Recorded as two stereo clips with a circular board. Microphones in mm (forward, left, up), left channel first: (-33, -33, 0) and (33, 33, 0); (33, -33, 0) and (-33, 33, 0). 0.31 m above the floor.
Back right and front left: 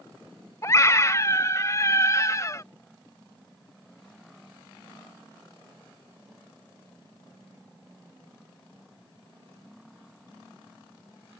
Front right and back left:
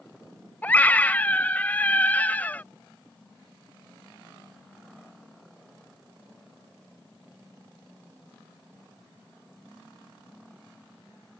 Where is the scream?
105° right.